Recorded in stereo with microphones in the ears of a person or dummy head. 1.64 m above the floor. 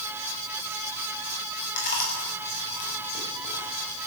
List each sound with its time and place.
1.8 s chewing: 40° left (ahead or behind), 7 m